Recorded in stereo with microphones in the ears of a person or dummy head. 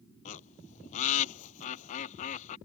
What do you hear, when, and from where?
0.2 s a bird: 40° left (ahead or behind)